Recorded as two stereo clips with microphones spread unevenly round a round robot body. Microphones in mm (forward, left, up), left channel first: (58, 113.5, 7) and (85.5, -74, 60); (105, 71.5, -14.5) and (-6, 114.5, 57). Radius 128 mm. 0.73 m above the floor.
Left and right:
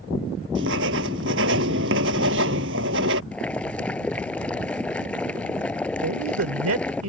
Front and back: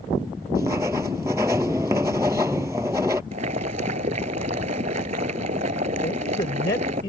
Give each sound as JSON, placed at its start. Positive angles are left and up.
{"t": 0.6, "sound": "writing", "azimuth_deg": -125}
{"t": 3.3, "sound": "boiling", "azimuth_deg": -170}
{"t": 6.0, "sound": "a man speaking", "azimuth_deg": -80}